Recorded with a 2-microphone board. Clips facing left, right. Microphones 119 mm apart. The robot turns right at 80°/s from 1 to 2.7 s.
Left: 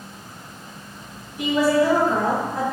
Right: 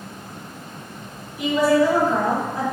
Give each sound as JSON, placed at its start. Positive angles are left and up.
{"t": 1.4, "sound": "a woman speaking", "azimuth_deg": -10, "distance_m": 1.7}